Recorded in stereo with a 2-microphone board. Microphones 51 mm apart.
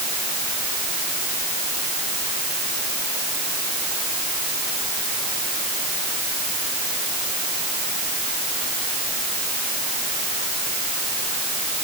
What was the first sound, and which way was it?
Only background noise.